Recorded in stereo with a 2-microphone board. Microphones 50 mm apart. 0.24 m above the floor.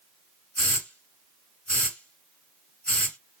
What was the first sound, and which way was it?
A hiss, 30° left (ahead or behind).